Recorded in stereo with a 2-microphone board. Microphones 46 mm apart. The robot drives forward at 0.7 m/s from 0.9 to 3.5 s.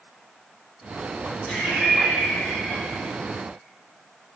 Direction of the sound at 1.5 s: 25° left (ahead or behind).